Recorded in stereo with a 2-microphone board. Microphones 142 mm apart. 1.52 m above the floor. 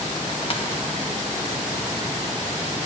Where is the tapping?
45° left (ahead or behind), 1.4 m.